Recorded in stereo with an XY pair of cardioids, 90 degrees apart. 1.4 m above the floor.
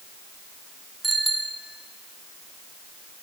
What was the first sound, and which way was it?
A bicycle bell, 25° right.